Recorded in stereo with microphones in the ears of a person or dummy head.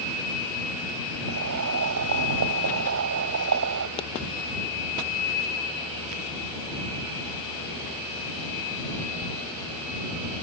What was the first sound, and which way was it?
Boiling, 70° right (ahead or behind).